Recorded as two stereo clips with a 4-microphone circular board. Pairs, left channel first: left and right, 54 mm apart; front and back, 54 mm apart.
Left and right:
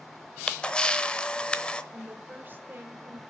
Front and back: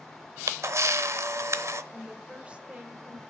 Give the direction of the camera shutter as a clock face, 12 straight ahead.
7 o'clock.